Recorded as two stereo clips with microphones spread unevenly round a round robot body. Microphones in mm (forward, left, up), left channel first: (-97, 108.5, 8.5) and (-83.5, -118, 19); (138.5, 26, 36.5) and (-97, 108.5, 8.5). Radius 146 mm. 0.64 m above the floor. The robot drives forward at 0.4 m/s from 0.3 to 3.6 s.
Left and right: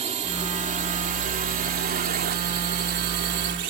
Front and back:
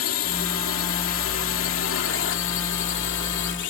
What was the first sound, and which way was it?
A drone, 30° right.